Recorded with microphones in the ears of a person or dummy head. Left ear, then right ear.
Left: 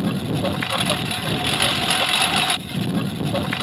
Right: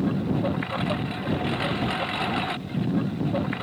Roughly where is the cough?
No cough in this recording.